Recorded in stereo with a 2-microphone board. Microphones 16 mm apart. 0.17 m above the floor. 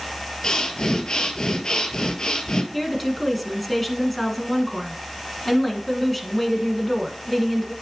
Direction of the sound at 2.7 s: 10° left (ahead or behind).